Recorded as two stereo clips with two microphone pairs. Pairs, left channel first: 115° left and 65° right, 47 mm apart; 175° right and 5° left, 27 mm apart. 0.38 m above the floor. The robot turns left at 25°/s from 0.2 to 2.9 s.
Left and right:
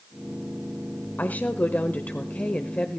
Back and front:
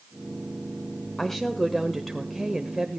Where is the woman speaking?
115° left, 1.1 m; by 3.0 s 75° left, 1.1 m.